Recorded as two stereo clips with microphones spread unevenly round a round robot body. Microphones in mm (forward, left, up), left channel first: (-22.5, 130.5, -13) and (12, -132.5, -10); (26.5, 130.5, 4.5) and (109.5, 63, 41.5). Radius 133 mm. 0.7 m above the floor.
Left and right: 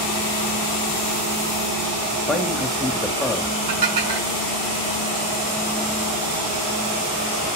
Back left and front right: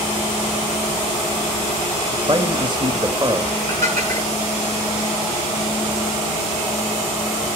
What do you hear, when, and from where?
2.3 s a man speaking: 10° left, 1.3 m
3.7 s dishes clattering: 75° right, 6 m